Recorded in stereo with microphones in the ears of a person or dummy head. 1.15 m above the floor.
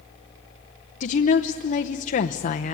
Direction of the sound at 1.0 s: 40° left (ahead or behind).